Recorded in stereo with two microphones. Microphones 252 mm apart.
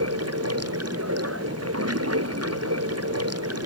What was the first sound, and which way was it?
Running water, 80° right.